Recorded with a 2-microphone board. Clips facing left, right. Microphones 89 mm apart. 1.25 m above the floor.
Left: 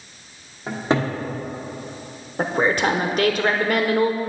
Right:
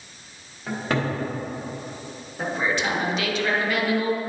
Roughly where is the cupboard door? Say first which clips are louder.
Left 4 dB; left.